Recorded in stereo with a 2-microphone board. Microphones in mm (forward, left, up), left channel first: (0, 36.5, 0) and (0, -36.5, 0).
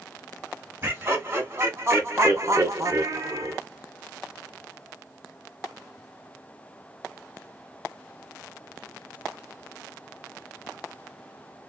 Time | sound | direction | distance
0.8 | laughter | 30° right (ahead or behind) | 1.6 m